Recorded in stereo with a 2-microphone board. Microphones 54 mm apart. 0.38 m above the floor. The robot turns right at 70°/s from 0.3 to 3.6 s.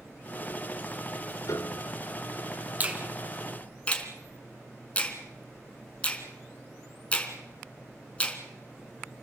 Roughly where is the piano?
Left.